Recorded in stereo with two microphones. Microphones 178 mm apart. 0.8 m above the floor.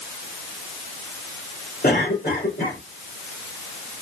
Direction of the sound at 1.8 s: 60° left (ahead or behind).